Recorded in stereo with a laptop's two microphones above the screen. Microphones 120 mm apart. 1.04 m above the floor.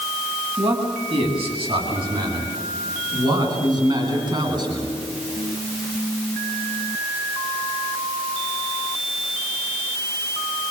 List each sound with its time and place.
0.6 s a man speaking: 50° right (ahead or behind), 9.5 m; by 5.0 s 40° right (ahead or behind), 12 m